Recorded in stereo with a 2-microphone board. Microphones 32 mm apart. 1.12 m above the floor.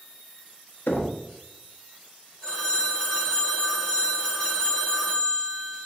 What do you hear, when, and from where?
0.9 s knocking: 75° left (ahead or behind), 1.0 m
2.4 s a phone ringing: 20° left (ahead or behind), 1.5 m